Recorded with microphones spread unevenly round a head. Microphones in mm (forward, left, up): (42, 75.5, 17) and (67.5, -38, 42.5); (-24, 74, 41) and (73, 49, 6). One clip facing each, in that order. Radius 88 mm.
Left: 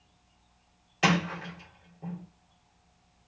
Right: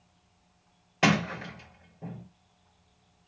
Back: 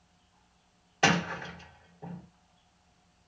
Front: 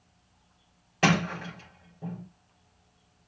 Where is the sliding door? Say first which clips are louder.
Right 1 dB, front 2 dB; 55° right, 4 m.